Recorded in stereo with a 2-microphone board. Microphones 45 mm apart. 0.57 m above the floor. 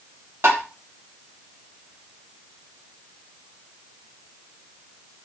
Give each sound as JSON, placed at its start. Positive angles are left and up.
{"t": 0.4, "sound": "tapping", "side_deg": -60, "distance_m": 1.0}